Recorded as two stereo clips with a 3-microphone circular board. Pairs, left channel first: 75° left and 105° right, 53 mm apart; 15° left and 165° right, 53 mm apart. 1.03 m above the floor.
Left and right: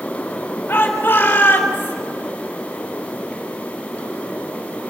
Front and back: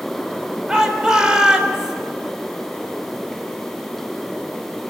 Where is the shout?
120° left, 4 m.